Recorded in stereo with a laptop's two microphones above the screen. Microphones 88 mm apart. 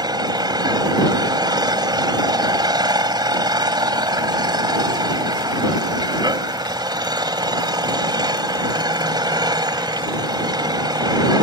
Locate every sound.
0.0 s an engine running: 55° right (ahead or behind)